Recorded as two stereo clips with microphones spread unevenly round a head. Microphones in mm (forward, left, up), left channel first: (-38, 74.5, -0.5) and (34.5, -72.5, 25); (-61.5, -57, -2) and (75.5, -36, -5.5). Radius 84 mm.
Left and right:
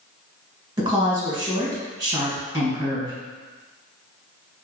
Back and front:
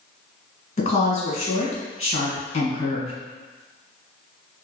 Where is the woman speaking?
135° right, 1.5 m.